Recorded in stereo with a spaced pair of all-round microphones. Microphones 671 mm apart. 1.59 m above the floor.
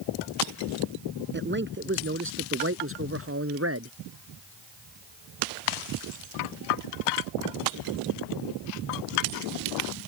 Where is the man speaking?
15° right (ahead or behind); by 3.9 s 20° right (ahead or behind).